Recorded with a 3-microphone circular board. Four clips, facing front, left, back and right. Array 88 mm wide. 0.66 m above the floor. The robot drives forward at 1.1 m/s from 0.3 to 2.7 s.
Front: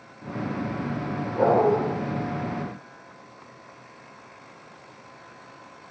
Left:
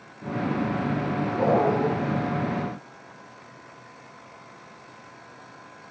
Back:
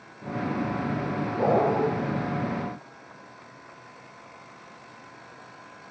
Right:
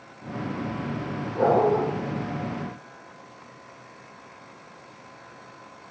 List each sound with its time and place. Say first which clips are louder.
1.4 s a dog barking: right 2 dB, front 3 dB; 5° left, 9 m